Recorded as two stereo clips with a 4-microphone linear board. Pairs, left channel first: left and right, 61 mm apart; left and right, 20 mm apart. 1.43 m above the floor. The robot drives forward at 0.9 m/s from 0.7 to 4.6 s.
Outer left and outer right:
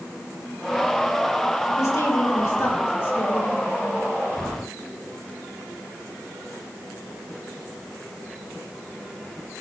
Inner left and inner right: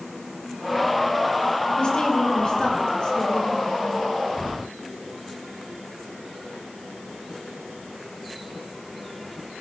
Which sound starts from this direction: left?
A woman speaking, at 1.8 s.